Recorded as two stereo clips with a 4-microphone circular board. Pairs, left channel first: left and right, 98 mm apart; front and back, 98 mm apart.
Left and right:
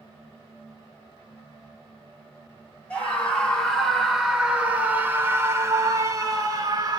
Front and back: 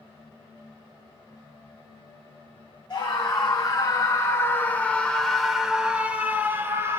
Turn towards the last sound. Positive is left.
turn(degrees=-125)